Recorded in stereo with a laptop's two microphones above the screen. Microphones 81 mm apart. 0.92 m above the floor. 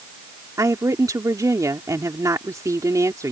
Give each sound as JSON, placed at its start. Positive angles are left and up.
{"t": 0.6, "sound": "a woman speaking", "side_deg": -45}